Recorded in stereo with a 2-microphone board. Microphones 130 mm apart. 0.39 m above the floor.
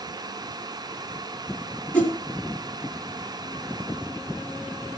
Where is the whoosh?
10° left (ahead or behind), 4 m.